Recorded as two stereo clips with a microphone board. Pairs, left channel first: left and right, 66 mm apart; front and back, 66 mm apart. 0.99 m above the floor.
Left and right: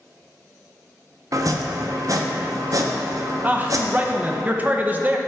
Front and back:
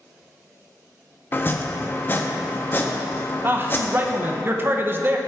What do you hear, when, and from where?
1.3 s chopping: 55° right, 0.6 m
3.4 s a man speaking: 140° right, 0.5 m